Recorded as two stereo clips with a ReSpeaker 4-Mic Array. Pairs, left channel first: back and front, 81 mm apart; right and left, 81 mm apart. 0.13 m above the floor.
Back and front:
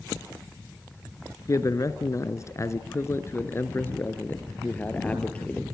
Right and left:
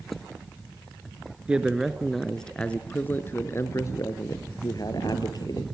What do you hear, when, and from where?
1.5 s a man speaking: 165° left, 1.6 m; by 5.6 s 105° right, 2.5 m